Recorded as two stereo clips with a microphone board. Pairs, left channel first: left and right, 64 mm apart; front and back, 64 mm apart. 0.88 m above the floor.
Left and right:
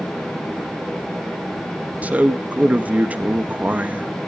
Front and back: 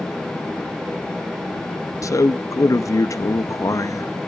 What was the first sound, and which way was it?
A man speaking, 25° right.